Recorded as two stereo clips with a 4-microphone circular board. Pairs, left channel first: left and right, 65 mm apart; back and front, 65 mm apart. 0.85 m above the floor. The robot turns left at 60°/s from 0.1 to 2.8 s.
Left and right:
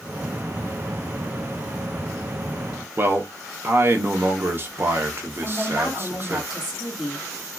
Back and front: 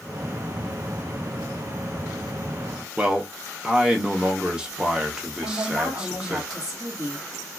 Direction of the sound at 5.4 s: 15° right.